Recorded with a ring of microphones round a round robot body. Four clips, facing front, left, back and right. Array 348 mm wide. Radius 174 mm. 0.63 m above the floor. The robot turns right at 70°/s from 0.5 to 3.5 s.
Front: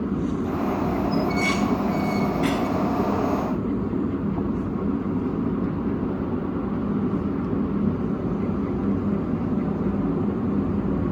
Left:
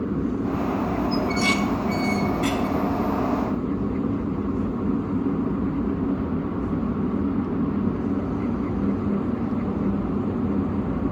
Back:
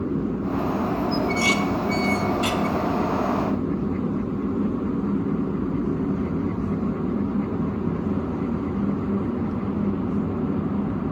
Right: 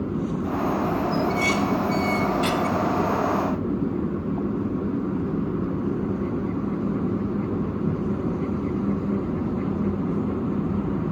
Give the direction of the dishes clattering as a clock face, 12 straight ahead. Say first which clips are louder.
Even, even; 8 o'clock.